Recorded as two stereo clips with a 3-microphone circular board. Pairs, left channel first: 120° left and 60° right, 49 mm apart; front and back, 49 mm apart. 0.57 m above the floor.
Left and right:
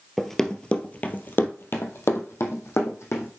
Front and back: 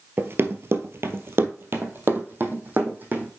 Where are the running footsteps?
150° right, 0.8 m; by 3.3 s 130° left, 1.9 m.